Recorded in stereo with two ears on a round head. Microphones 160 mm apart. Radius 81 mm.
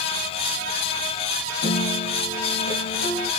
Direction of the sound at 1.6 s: 55° left (ahead or behind).